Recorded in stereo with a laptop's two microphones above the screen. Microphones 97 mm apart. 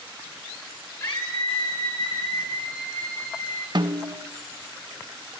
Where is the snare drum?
50° right (ahead or behind), 1.0 m.